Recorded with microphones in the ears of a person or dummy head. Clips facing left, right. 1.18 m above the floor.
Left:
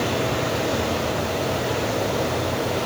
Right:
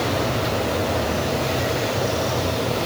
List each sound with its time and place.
Only background noise.